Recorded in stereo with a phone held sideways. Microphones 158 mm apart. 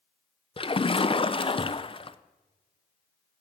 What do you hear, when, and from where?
0.6 s a splash: 35° left (ahead or behind), 0.6 m